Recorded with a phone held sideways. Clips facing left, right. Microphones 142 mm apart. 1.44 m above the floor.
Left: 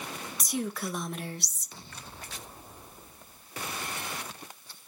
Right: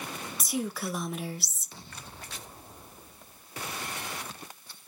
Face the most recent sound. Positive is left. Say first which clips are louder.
# even
turn(degrees=0)  # may be behind; listen again after turning